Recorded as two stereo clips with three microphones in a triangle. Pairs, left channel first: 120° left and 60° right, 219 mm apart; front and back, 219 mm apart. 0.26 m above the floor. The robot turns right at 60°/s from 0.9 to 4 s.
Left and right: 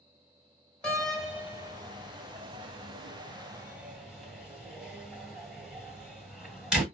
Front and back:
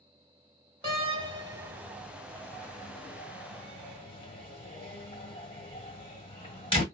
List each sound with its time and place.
0.8 s a door slam: 165° right, 1.1 m; by 6.8 s 25° left, 1.1 m